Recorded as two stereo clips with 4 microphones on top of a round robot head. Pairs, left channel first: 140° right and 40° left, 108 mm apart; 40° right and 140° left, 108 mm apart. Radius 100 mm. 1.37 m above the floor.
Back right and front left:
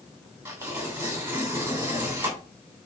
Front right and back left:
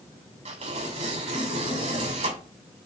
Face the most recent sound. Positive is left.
turn(degrees=110)